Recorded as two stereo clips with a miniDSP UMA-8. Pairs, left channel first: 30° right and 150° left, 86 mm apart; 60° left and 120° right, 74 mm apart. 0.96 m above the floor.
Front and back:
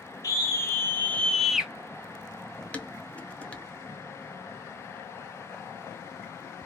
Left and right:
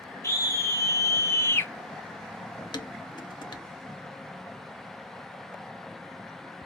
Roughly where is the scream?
Ahead.